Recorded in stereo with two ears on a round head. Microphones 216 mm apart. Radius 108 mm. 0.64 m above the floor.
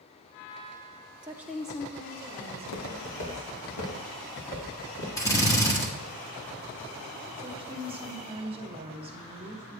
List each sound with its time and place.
1.2 s a woman speaking: 20° right (ahead or behind), 0.6 m; by 3.5 s 30° left (ahead or behind), 3 m
2.5 s footsteps: 75° left (ahead or behind), 2.0 m; by 5.1 s 65° left (ahead or behind), 5 m
5.2 s a drill: 15° left (ahead or behind), 1.2 m
7.4 s a woman speaking: 25° right (ahead or behind), 1.1 m